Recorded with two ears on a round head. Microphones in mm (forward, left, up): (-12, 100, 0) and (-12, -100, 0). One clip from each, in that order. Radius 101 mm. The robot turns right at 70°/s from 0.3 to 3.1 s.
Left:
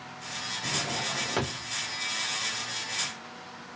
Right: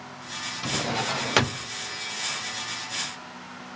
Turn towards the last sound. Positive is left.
turn(degrees=65)